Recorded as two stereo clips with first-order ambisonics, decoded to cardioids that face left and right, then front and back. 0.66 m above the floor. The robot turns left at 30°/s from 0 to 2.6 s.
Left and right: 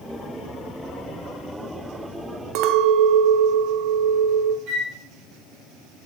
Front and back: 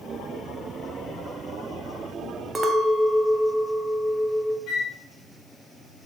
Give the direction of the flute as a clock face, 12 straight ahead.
2 o'clock.